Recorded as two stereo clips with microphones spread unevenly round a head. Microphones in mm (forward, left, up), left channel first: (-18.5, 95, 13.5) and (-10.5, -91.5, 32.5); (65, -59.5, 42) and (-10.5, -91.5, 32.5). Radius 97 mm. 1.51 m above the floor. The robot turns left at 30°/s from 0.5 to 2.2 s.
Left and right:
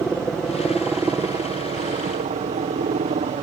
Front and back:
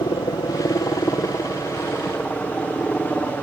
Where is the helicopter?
5° left; by 3.5 s 40° right.